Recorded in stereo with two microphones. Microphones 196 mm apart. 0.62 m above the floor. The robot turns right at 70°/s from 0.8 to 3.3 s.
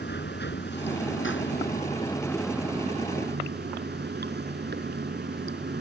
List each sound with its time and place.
0.0 s running water: 65° left; by 5.8 s 120° right